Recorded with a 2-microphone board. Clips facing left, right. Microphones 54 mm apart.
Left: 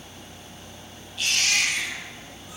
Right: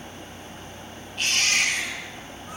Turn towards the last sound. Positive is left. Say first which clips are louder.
# right 1 dB
turn(degrees=-45)  # may be behind; listen again after turning